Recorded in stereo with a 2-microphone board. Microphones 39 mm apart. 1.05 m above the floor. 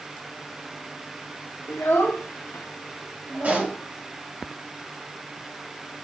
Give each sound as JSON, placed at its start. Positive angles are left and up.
{"t": 1.7, "sound": "a child speaking", "side_deg": 70, "distance_m": 1.3}
{"t": 3.4, "sound": "a pop", "side_deg": -45, "distance_m": 2.0}